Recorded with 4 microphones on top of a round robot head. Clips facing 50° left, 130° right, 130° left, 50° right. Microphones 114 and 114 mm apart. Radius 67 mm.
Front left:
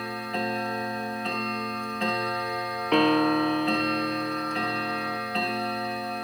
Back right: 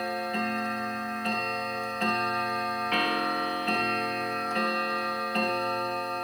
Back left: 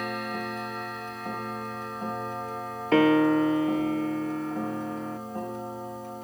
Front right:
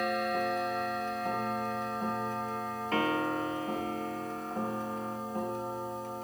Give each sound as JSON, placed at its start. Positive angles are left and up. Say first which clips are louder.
{"t": 2.9, "sound": "a piano", "louder": "front left 10 dB, back left 11 dB", "azimuth_deg": 110}